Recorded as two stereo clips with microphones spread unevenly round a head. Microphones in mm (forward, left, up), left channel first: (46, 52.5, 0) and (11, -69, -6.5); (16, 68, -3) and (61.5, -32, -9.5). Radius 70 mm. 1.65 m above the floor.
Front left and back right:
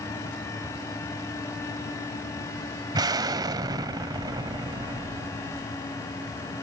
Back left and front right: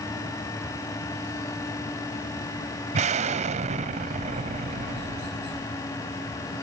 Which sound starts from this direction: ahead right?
An explosion, at 2.9 s.